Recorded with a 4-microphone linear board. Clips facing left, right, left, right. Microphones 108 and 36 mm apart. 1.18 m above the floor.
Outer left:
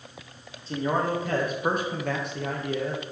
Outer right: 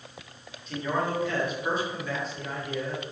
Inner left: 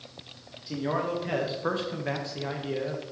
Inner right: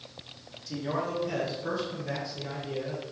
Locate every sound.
0.7 s a man speaking: 30° left (ahead or behind), 1.4 m; by 3.0 s 65° left (ahead or behind), 1.1 m